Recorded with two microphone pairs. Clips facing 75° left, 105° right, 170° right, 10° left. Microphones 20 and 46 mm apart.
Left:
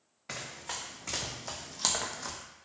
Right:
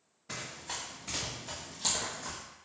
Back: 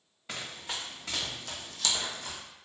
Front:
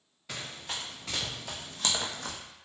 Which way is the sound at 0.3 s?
115° left.